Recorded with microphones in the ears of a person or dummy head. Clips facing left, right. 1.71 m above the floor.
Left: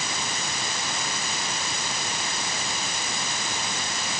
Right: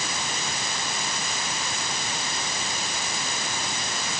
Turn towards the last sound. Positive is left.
No sound to turn to.